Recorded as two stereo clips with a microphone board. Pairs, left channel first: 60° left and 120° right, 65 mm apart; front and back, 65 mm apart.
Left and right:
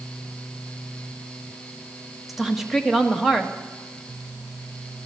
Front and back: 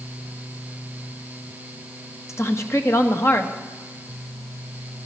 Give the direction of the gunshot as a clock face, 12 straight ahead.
No gunshot in this recording.